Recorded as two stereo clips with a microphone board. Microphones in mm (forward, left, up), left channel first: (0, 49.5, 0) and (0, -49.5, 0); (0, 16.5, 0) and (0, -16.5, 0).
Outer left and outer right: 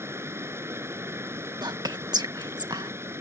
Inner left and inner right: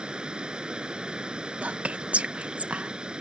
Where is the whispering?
45° right (ahead or behind).